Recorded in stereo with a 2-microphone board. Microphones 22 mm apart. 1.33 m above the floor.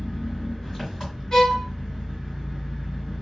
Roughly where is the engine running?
Centre.